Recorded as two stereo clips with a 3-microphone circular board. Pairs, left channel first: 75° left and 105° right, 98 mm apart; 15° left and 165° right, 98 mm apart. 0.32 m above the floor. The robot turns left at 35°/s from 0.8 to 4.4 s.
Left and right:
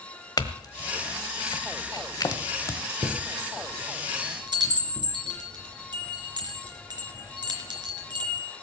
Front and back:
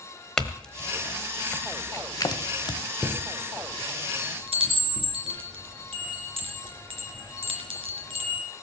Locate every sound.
0.4 s a clink: 95° left, 1.2 m; by 2.8 s 25° left, 1.2 m
3.0 s a chime: 100° right, 3.5 m; by 8.4 s 150° right, 3.5 m